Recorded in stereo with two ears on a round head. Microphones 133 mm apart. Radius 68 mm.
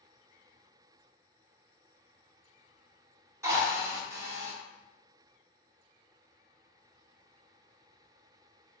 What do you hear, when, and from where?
3.4 s a drill: 20° right (ahead or behind), 1.0 m